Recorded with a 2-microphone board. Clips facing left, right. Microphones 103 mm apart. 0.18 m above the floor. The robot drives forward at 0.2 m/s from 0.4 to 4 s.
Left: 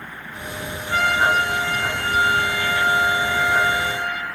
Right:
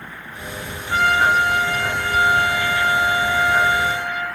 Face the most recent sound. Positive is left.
turn(degrees=-15)  # may be behind; listen again after turning